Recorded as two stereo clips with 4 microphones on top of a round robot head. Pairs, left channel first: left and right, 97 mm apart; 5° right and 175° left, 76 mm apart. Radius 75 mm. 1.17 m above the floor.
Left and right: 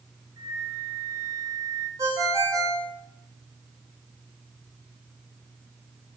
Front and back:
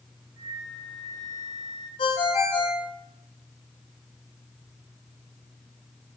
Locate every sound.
0.4 s a flute: 145° right, 1.6 m
2.0 s a ringtone: 25° right, 1.4 m